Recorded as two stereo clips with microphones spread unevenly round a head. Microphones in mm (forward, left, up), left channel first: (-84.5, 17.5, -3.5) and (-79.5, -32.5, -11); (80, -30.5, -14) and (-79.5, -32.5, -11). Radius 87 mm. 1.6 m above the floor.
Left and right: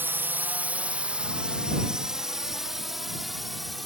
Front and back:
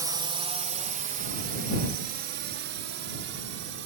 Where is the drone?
115° right; by 3.9 s 175° right.